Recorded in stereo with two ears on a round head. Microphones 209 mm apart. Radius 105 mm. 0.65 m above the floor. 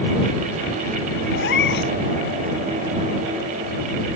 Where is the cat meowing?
45° left (ahead or behind).